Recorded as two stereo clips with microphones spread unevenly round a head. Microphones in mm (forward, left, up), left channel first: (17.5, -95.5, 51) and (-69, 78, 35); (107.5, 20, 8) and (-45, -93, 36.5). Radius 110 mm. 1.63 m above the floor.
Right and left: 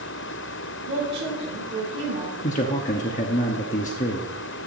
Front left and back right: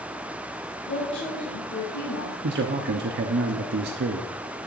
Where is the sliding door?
I don't hear a sliding door.